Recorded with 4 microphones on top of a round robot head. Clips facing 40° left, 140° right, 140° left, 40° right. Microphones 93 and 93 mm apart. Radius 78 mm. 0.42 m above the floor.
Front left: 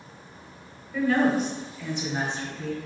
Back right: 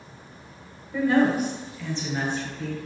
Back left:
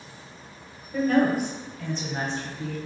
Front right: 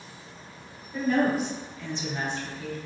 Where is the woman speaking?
155° left, 1.3 m; by 2.8 s 75° left, 1.2 m.